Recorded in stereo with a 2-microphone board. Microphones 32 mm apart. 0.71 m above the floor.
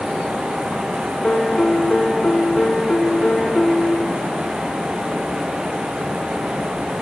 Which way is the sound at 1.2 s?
35° left (ahead or behind).